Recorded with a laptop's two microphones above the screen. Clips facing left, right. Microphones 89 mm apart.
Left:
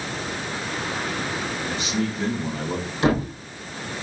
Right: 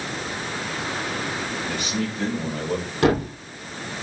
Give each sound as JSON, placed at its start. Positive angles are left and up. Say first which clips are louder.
{"t": 1.7, "sound": "a man speaking", "louder": "left 3 dB", "side_deg": -50, "distance_m": 5.5}
{"t": 3.0, "sound": "a thud", "louder": "right 1 dB", "side_deg": -55, "distance_m": 4.0}